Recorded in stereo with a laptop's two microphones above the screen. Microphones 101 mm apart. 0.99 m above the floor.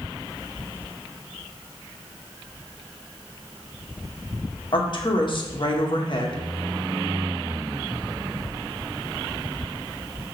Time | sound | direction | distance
4.7 | a woman speaking | 50° left (ahead or behind) | 1.3 m